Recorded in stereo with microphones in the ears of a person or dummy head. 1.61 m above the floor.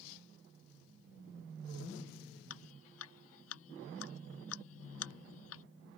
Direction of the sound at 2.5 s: 85° left.